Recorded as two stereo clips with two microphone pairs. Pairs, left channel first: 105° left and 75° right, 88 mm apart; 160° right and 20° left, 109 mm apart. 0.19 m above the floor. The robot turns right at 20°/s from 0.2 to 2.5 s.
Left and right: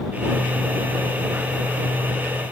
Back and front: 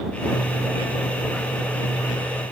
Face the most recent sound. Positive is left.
No sound to turn to.